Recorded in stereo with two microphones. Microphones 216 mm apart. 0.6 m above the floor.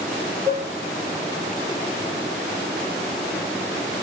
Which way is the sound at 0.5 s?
15° right (ahead or behind).